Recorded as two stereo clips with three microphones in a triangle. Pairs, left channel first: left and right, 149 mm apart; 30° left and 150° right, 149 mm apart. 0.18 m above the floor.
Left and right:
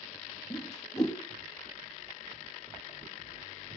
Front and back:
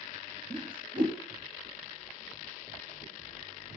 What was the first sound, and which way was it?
A whoosh, 155° left.